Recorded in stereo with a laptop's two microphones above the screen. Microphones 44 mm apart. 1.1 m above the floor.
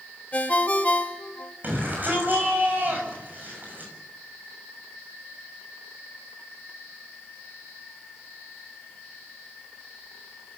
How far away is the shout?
About 7 m.